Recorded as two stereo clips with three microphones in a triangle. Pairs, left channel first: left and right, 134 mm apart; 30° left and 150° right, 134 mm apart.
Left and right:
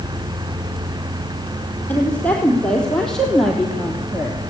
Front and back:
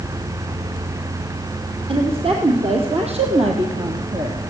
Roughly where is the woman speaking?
Behind.